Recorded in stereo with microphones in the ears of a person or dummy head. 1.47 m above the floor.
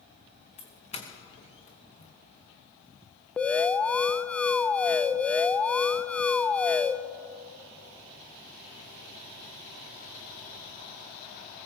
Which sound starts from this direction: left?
A doorbell, at 0.6 s.